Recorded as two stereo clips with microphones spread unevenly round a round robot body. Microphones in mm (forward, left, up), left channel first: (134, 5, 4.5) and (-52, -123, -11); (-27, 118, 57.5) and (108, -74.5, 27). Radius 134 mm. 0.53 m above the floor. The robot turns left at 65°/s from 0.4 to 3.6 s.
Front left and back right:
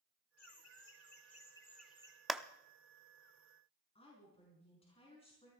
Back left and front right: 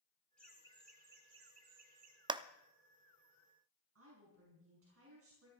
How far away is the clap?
About 0.6 m.